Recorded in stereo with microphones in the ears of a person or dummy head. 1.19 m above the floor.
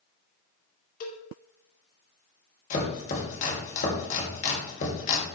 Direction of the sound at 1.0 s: 45° left (ahead or behind).